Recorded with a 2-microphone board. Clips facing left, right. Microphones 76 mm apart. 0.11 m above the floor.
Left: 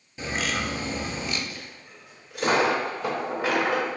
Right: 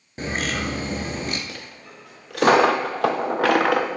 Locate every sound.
0.2 s a bird: 50° right (ahead or behind), 0.6 m
1.5 s a dropped coin: 80° right, 0.6 m